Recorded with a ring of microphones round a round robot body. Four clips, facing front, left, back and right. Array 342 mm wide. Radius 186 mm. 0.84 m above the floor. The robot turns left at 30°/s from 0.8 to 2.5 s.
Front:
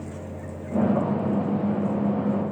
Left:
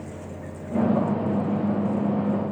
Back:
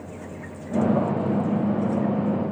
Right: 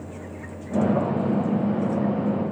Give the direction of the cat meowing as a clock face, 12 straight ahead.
No cat meowing in this recording.